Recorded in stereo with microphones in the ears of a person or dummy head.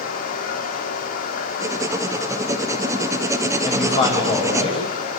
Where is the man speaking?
40° left (ahead or behind), 9 m.